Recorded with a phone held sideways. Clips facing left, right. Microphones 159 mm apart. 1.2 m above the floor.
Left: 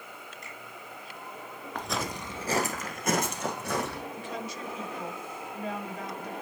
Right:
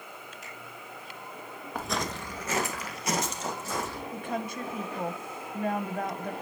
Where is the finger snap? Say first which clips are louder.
Even; 5° right (ahead or behind), 6.5 m.